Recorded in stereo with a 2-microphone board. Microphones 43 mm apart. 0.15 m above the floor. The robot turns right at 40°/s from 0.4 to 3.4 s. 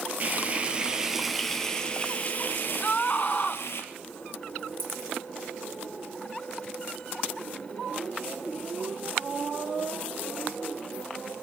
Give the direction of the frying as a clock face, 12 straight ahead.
1 o'clock.